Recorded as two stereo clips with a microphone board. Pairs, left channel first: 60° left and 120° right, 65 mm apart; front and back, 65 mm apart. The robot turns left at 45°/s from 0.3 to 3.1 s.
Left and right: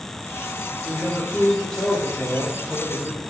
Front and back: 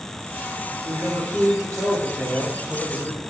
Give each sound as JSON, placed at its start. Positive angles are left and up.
{"t": 0.8, "sound": "a man speaking", "azimuth_deg": -175, "distance_m": 2.5}